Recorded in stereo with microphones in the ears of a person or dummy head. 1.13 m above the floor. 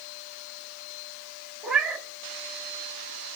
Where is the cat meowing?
5° right (ahead or behind), 1.0 m.